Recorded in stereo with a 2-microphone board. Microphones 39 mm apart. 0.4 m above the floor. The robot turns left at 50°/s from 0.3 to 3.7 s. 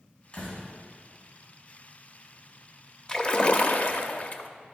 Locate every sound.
0.3 s a door slam: 40° left (ahead or behind), 3 m; by 0.6 s 50° left (ahead or behind), 3 m
3.1 s a splash: 155° left, 0.5 m; by 4.5 s 125° left, 0.5 m